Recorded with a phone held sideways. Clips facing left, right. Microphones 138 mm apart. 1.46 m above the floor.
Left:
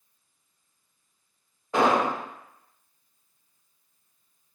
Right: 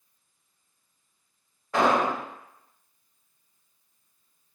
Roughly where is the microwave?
No microwave in this recording.